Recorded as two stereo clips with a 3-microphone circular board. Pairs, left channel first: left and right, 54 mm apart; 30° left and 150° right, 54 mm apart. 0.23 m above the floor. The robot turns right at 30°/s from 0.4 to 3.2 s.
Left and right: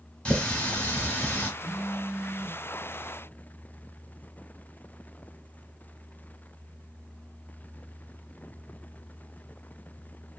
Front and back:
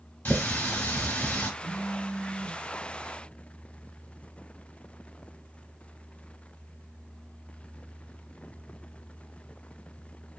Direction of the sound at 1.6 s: 130° right.